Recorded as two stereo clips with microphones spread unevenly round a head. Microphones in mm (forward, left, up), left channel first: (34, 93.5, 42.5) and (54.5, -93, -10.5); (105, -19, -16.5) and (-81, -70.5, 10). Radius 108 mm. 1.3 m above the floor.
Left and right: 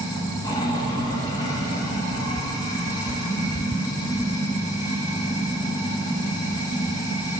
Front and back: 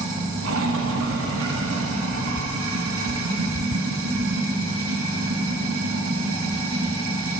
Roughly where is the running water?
Behind.